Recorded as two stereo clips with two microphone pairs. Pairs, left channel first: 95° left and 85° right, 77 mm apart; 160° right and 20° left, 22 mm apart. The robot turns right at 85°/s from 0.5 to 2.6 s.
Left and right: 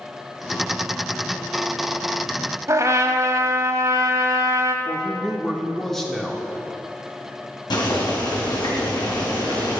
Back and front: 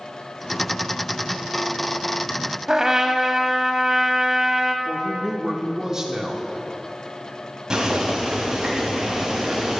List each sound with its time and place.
2.7 s a trumpet: 45° right, 1.0 m
4.8 s a woman speaking: 15° left, 1.0 m
7.7 s boiling: 80° left, 4 m